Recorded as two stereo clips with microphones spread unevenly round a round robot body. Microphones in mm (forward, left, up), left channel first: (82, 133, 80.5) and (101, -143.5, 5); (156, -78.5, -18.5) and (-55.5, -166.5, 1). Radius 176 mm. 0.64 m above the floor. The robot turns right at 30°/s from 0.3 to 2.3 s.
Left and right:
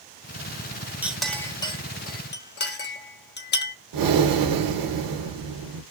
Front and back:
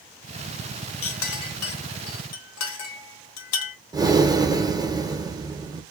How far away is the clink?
About 0.6 m.